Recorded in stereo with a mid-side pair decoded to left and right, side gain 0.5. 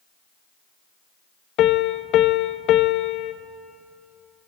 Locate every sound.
1.6 s a piano: 65° left, 0.9 m